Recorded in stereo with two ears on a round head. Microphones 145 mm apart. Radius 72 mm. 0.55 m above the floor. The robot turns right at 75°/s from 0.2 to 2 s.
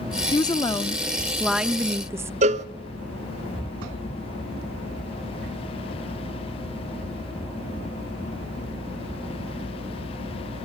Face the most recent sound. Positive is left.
turn(degrees=-45)  # may be behind; listen again after turning